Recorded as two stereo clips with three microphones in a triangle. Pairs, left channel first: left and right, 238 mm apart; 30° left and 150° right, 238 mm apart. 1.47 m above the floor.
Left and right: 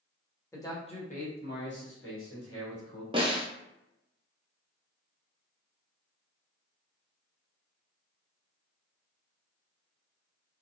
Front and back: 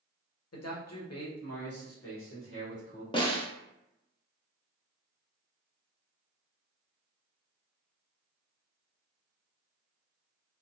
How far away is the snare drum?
About 0.6 m.